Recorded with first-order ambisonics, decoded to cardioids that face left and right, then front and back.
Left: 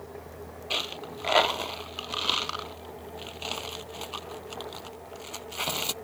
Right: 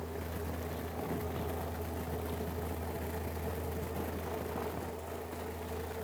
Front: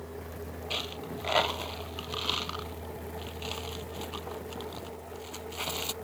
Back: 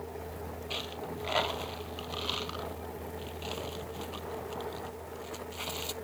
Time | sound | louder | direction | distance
0.7 | a dropped coin | left 13 dB, front 3 dB | 75° left | ?